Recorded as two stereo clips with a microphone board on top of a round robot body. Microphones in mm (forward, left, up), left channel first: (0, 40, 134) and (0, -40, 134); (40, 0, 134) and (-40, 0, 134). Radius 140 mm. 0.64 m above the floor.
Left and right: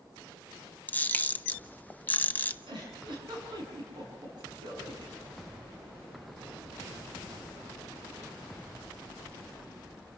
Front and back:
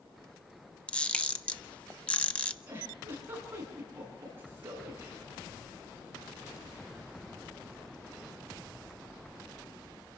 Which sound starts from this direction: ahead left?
A camera shutter, at 0.9 s.